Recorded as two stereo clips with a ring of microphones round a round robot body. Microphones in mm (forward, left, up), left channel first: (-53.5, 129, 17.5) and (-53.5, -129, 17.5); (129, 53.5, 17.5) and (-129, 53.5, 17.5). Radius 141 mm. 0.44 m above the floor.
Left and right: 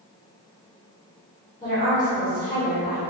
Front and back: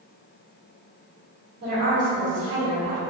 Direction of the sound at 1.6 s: 165° left.